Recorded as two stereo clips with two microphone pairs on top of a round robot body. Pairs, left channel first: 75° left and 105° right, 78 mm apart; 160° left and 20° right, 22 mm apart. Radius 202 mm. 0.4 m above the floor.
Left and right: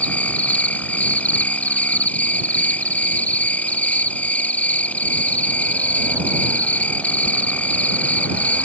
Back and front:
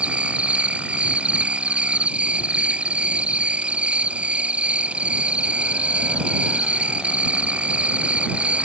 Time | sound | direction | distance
0.0 | an insect | 5° left | ?